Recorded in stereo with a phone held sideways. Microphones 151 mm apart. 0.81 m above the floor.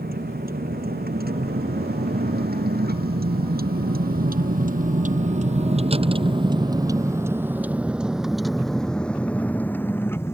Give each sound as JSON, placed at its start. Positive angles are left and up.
{"t": 0.0, "sound": "a vehicle", "side_deg": -80}